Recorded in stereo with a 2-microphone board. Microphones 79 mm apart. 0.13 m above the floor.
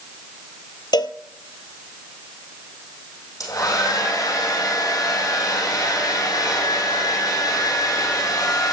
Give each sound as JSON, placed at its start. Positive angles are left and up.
{"t": 0.9, "sound": "a cowbell", "side_deg": 75, "distance_m": 0.7}
{"t": 3.4, "sound": "a hair dryer", "side_deg": 55, "distance_m": 4.5}